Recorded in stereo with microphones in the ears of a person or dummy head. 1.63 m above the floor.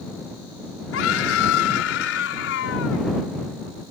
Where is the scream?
90° left.